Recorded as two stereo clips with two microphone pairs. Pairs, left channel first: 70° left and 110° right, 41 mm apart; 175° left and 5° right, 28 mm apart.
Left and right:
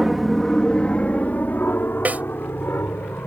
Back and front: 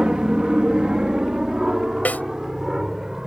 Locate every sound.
0.0 s an aircraft: 25° right; by 3.3 s 70° left
2.0 s a snare drum: 160° right